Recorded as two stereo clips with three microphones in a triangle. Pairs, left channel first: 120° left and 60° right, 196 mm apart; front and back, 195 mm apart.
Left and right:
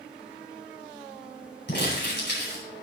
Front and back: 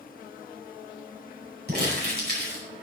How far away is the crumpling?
About 5 m.